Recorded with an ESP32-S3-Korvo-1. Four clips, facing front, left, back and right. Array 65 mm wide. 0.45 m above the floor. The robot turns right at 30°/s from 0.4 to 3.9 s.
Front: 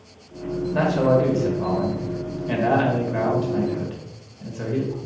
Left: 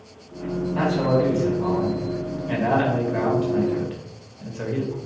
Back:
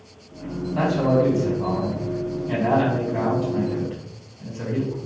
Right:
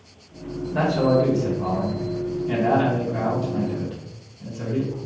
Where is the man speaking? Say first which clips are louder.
Right 2 dB, front 1 dB; 30° right, 1.7 m; by 5.0 s 65° left, 1.7 m.